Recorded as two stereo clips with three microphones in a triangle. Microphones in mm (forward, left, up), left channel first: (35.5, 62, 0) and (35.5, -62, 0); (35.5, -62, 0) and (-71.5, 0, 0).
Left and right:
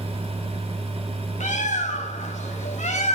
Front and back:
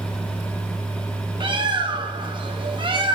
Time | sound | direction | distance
1.4 | a bird | 105° left | 0.7 m